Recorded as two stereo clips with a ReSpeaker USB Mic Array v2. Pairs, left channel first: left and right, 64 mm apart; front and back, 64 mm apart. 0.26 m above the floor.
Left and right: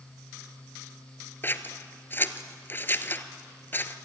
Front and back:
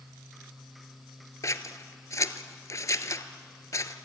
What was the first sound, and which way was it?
Scissors, 35° left.